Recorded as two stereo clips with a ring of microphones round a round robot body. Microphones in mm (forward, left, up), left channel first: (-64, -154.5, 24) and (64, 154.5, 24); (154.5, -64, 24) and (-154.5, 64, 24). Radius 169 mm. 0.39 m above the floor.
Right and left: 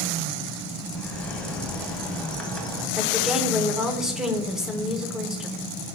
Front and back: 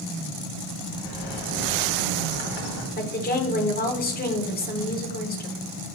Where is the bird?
25° right, 2.0 m.